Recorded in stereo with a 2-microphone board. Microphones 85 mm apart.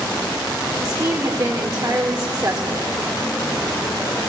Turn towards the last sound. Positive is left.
turn(degrees=-45)  # may be behind; listen again after turning